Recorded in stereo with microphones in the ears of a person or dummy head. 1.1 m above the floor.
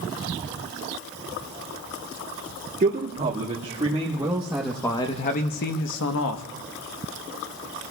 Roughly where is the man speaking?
Right.